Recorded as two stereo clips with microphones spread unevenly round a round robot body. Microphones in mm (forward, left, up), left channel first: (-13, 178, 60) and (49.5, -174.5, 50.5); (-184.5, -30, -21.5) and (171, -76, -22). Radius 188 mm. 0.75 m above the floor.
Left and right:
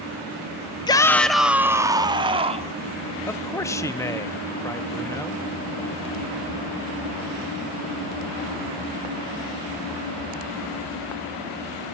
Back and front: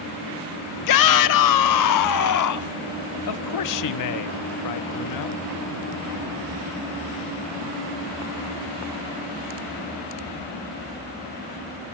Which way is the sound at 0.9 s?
175° left.